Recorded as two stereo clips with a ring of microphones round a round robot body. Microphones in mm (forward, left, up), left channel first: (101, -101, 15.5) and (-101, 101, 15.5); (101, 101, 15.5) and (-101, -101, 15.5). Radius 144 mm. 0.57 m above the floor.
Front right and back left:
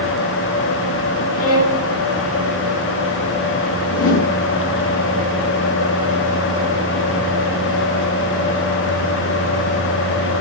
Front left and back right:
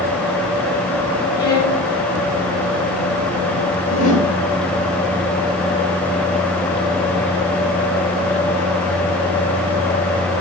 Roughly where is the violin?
Ahead right.